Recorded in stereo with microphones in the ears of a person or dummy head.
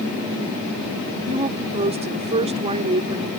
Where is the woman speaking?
30° right (ahead or behind).